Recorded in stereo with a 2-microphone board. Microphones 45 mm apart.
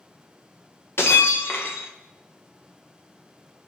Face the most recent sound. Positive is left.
turn(degrees=60)  # may be behind; listen again after turning